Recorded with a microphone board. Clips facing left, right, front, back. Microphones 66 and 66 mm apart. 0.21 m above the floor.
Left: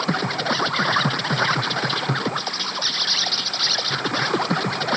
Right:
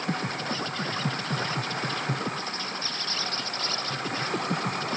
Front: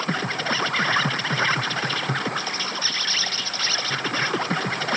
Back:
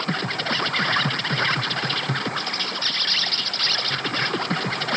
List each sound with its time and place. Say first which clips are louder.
0.0 s an insect: left 7 dB, even; 85° left